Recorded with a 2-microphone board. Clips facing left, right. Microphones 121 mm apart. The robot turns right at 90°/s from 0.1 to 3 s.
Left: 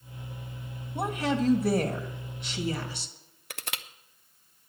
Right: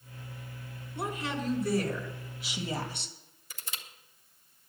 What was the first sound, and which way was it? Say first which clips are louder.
A woman speaking: left 7 dB; 50° left.